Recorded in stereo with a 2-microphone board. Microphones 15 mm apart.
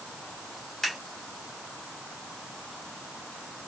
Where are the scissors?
15° left (ahead or behind), 3 m.